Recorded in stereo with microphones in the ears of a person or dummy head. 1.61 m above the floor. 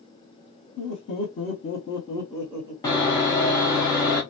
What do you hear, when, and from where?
0.8 s laughter: 45° left (ahead or behind), 1.2 m; by 2.7 s 20° right (ahead or behind), 0.7 m
2.8 s sawing: 10° left (ahead or behind), 0.8 m